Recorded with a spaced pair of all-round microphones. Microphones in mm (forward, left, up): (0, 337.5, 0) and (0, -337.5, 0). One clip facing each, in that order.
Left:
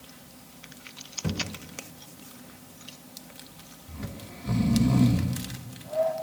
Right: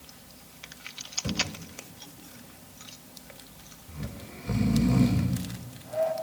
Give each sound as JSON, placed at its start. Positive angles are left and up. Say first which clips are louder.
{"t": 1.2, "sound": "a thud", "louder": "left 1 dB", "side_deg": 70, "distance_m": 3.0}
{"t": 3.9, "sound": "snoring", "louder": "left 1 dB", "side_deg": 60, "distance_m": 2.5}